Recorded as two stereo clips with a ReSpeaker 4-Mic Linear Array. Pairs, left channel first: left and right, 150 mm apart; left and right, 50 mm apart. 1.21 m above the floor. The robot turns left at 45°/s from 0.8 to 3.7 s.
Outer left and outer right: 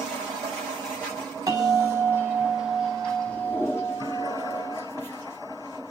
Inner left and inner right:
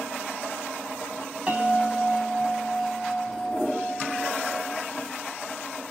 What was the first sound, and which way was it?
A bell, 25° right (ahead or behind).